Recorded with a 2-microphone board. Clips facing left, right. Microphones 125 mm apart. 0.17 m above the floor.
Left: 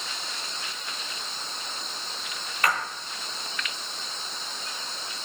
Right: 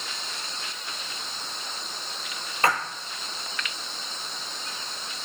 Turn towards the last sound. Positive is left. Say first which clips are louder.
# right 3 dB
turn(degrees=-30)  # may be behind; listen again after turning